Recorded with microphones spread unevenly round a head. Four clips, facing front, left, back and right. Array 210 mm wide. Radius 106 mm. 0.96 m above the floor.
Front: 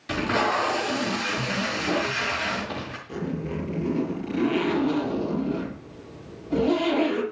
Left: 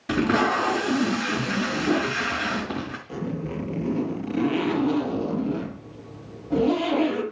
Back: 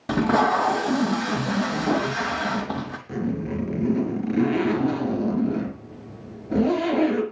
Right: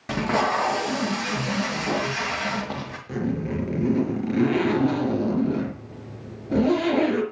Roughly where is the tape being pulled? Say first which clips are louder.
Left 1 dB, back 4 dB; behind.